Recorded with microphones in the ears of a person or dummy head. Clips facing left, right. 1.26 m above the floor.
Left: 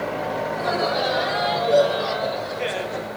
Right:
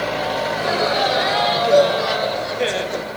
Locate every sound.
0.5 s laughter: 75° right (ahead or behind), 2.5 m; by 3.1 s 50° right (ahead or behind), 0.8 m